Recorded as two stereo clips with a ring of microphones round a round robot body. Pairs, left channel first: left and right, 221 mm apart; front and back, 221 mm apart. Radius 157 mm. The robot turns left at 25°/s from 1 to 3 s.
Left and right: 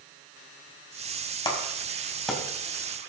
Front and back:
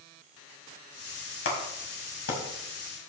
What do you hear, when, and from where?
1.4 s a clap: 20° left, 3 m; by 2.4 s straight ahead, 3 m